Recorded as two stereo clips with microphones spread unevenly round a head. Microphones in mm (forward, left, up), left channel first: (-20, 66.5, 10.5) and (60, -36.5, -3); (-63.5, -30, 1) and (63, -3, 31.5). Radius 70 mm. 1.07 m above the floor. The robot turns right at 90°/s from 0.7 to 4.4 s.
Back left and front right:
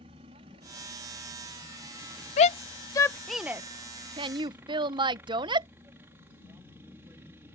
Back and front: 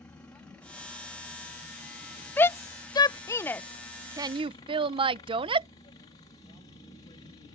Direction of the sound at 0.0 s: 95° right.